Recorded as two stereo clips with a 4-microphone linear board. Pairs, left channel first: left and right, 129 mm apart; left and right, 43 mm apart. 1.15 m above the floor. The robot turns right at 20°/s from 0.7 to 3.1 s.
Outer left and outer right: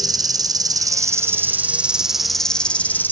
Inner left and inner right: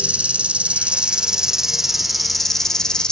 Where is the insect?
30° right, 0.8 m; by 3.1 s 15° left, 0.8 m.